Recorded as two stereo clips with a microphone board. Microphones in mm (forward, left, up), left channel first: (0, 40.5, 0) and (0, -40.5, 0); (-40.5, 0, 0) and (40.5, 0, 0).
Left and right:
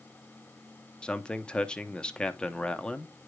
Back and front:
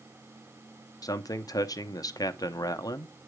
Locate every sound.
1.0 s a man speaking: 165° left, 0.7 m